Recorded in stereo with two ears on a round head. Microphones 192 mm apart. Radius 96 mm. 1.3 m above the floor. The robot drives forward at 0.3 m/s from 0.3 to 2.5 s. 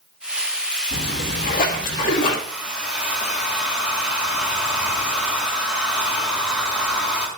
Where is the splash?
45° left (ahead or behind), 1.4 m; by 2.4 s 35° left (ahead or behind), 1.7 m.